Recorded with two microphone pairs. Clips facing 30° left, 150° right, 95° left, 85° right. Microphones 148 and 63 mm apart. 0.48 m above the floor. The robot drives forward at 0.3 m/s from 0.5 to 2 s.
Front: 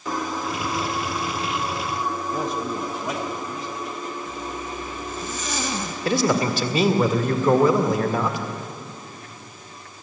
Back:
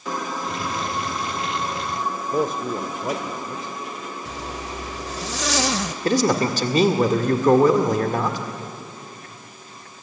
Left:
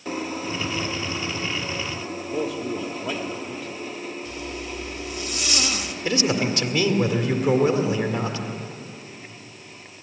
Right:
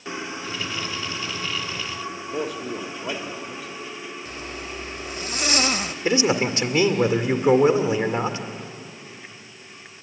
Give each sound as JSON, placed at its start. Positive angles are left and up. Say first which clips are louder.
{"t": 2.3, "sound": "a man speaking", "louder": "back 3 dB, left 2 dB", "azimuth_deg": -175, "distance_m": 1.3}
{"t": 4.2, "sound": "a zipper", "louder": "front 1 dB, left 2 dB", "azimuth_deg": -135, "distance_m": 0.7}
{"t": 6.0, "sound": "a man speaking", "louder": "back 1 dB, right 2 dB", "azimuth_deg": -130, "distance_m": 1.7}